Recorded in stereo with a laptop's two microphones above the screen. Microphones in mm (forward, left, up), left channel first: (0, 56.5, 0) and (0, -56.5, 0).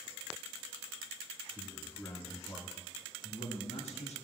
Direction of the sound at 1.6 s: 20° left (ahead or behind).